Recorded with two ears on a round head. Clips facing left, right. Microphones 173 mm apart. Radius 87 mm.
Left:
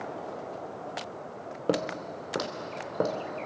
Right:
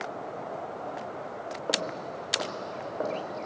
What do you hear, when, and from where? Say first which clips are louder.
1.7 s footsteps: left 5 dB; 50° left (ahead or behind), 1.8 m; by 3.1 s 65° left (ahead or behind), 2.5 m